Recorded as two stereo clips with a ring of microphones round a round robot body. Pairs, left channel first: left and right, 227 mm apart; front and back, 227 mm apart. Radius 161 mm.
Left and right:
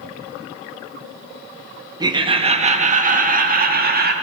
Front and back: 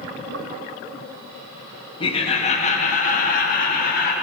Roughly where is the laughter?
Ahead right.